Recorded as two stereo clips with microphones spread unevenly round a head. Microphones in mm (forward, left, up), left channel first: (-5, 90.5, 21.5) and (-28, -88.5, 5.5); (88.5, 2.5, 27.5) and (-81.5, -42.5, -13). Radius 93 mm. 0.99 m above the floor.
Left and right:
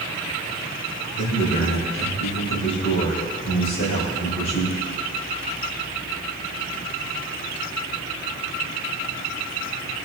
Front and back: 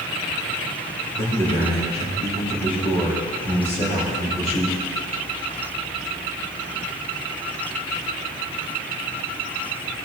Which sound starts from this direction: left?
A man speaking, at 1.1 s.